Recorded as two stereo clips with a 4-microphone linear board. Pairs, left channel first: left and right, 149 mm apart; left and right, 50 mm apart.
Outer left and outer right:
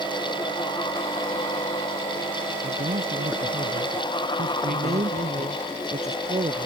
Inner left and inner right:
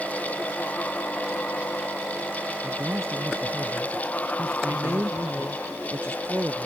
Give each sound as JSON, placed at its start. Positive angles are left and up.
{"t": 2.6, "sound": "a man speaking", "side_deg": -70}
{"t": 4.7, "sound": "a woman speaking", "side_deg": -50}